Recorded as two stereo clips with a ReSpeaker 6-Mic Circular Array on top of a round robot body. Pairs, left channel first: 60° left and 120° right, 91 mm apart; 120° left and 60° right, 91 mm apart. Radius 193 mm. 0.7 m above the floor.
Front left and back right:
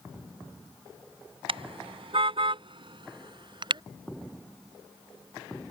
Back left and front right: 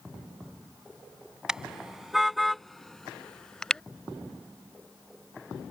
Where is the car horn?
145° right; by 3.8 s 160° right.